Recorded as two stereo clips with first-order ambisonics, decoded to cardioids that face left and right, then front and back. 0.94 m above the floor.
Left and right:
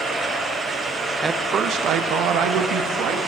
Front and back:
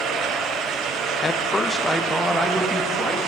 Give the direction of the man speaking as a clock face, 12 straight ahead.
1 o'clock.